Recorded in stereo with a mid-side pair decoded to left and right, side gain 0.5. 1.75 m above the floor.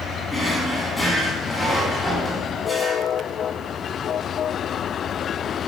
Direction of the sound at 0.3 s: 15° left.